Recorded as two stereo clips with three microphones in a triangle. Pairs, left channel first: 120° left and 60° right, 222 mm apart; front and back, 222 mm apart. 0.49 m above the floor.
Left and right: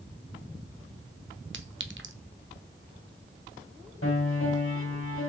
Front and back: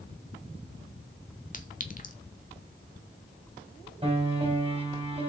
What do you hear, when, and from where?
1.5 s a clink: 45° right, 1.1 m
4.0 s a piano: 115° left, 4 m